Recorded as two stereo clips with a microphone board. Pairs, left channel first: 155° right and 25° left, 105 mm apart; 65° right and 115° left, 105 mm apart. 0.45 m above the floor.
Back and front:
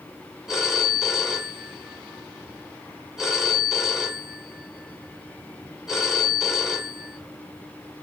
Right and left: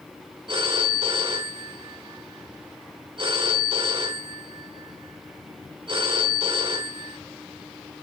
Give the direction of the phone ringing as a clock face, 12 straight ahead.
8 o'clock.